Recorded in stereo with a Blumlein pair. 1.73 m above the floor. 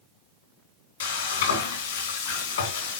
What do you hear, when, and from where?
1.0 s frying: 60° left, 3.5 m